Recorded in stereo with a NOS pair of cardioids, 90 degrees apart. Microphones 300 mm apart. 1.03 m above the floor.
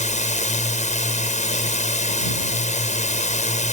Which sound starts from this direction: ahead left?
A drone, at 0.0 s.